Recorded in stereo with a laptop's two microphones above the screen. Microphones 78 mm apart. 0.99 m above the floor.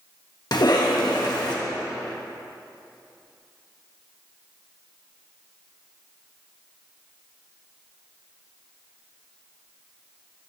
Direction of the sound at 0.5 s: 65° left (ahead or behind).